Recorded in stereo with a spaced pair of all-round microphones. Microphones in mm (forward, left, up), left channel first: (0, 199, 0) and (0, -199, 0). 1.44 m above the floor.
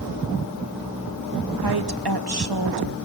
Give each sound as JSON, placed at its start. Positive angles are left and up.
{"t": 1.6, "sound": "a woman speaking", "side_deg": -70, "distance_m": 1.7}